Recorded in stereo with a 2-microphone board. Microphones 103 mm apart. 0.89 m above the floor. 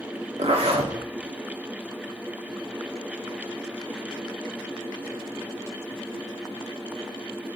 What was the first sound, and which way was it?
A zipper, 75° right (ahead or behind).